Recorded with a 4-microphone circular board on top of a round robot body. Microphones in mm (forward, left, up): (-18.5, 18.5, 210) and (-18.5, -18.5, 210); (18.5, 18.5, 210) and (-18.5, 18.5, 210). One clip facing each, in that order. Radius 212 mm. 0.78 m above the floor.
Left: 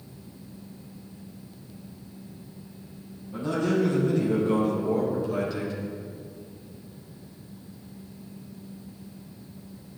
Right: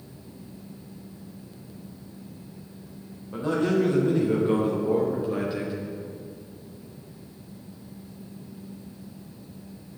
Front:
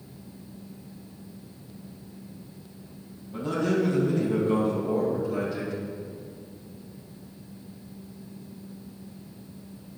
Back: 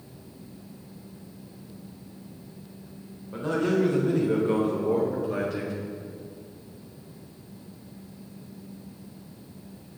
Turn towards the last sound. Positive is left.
turn(degrees=-160)